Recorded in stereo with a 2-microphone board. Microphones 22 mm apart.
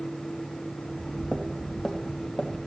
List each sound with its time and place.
0.8 s footsteps: 35° left (ahead or behind), 3 m; by 2.6 s 20° left (ahead or behind), 2 m